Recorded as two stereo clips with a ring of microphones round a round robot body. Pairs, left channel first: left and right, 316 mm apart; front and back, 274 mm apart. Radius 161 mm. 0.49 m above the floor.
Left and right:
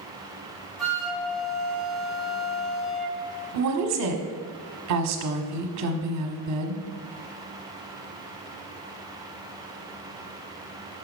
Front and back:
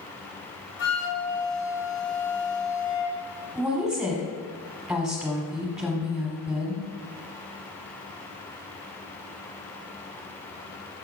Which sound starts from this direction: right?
A woman speaking, at 3.5 s.